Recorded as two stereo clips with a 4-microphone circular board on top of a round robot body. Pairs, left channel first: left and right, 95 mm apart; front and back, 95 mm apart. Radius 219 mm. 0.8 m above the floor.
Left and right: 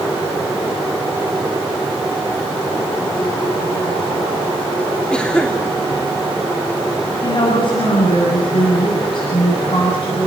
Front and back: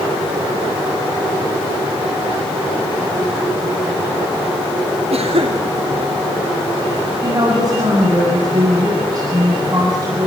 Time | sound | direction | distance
5.1 | a cough | 170° left | 3 m
7.2 | a woman speaking | 130° left | 8 m